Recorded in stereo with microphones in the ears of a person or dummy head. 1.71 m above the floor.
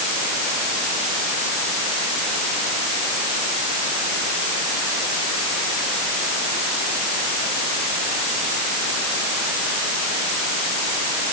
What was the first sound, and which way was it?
Only background noise.